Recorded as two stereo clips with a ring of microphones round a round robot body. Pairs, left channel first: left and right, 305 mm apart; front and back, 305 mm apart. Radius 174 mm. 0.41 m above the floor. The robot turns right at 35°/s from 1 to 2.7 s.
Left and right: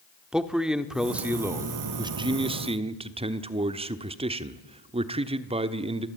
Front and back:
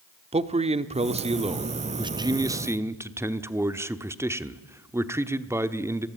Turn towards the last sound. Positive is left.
turn(degrees=-115)